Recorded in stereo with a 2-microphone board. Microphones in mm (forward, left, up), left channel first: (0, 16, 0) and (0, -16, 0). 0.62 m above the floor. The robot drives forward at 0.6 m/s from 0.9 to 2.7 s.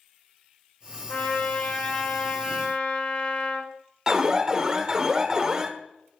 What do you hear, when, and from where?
1.1 s a trumpet: 55° left (ahead or behind), 2 m; by 3.7 s 40° left (ahead or behind), 3 m
4.1 s an alarm: 25° right (ahead or behind), 1.5 m